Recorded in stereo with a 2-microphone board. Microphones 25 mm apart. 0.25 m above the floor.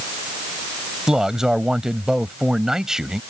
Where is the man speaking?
20° right (ahead or behind).